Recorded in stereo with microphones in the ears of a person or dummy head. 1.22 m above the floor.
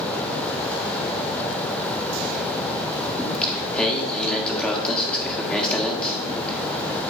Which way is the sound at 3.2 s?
5° left (ahead or behind).